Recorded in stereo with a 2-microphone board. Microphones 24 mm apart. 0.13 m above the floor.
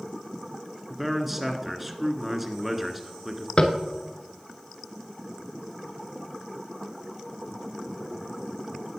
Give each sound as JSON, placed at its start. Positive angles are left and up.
{"t": 0.9, "sound": "a man speaking", "side_deg": -5, "distance_m": 1.6}
{"t": 3.6, "sound": "tapping", "side_deg": 45, "distance_m": 1.3}